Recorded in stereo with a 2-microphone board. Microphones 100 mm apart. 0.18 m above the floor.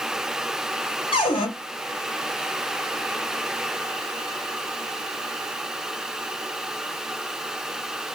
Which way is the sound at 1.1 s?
55° left (ahead or behind).